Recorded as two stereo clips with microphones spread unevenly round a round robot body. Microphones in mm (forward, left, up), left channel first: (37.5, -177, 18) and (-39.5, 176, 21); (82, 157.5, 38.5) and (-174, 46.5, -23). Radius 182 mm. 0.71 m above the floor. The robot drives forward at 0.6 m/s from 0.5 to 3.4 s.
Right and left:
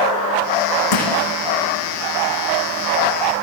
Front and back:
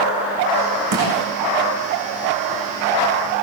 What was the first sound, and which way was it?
Crushing, 110° right.